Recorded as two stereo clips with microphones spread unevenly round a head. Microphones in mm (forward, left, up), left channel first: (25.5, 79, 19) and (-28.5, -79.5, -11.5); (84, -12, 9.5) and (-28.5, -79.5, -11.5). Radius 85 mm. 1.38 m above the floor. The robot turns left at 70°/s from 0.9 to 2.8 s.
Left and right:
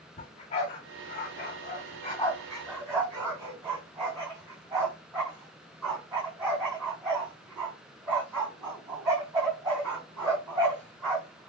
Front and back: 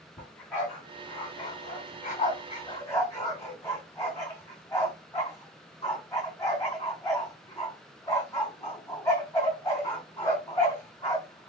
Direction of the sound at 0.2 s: 105° left.